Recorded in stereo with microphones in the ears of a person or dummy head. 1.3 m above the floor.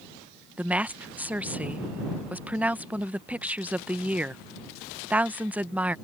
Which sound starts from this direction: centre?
A woman speaking, at 0.6 s.